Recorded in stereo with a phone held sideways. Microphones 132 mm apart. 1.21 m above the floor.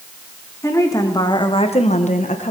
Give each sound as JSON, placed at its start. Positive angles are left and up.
{"t": 0.6, "sound": "a woman speaking", "side_deg": 20, "distance_m": 2.5}